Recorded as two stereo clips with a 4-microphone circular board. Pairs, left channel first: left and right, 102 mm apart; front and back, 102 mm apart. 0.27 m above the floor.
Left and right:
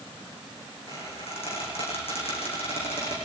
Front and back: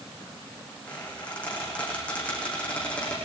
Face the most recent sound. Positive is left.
turn(degrees=80)